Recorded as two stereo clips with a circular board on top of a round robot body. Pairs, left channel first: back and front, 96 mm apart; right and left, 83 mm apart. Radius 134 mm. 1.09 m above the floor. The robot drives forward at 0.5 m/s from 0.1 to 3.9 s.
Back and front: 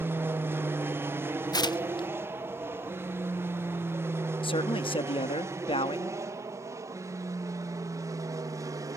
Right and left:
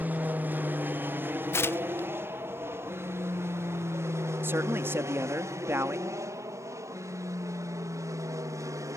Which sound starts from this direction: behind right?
Tearing paper, at 1.5 s.